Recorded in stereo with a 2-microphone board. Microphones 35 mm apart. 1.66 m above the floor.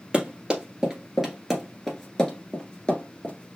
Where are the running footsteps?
25° right (ahead or behind), 1.9 m; by 3.6 s 35° left (ahead or behind), 1.9 m.